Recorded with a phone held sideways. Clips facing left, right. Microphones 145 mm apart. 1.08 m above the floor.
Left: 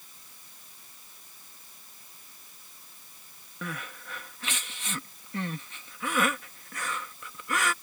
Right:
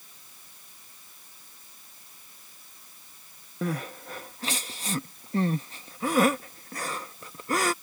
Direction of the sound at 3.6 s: 40° right (ahead or behind).